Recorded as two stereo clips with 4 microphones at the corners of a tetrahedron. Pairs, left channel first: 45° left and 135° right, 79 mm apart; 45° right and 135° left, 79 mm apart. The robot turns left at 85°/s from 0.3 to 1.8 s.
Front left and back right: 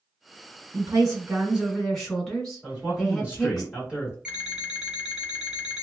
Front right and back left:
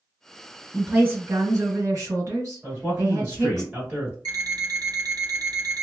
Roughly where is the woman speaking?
Behind right.